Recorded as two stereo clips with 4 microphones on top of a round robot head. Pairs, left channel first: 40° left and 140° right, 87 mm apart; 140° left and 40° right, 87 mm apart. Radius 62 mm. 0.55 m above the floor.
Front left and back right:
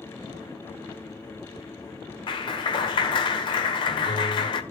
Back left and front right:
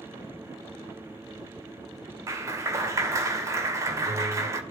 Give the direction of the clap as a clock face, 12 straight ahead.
12 o'clock.